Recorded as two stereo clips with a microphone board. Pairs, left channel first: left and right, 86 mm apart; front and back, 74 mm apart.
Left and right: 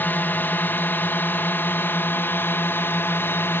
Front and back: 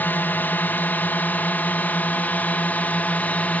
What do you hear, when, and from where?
0.0 s a drone: 40° left; by 3.6 s 50° left